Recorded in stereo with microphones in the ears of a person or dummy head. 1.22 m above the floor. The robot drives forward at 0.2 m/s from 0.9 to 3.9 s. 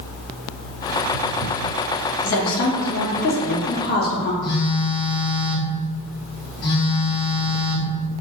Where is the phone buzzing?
35° left (ahead or behind), 0.9 m.